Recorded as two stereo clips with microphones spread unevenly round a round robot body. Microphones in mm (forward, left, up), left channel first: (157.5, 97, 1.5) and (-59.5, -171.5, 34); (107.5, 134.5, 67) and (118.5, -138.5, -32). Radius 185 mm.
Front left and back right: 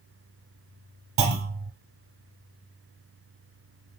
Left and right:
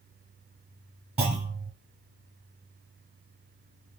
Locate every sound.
1.2 s a clunk: 175° right, 1.0 m